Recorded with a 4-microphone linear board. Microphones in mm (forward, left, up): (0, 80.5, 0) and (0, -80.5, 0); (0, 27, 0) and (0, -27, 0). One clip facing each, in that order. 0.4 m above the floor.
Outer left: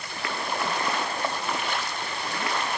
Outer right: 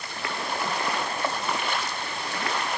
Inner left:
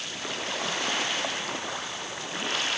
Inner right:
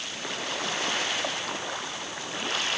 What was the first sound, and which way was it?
Only background noise.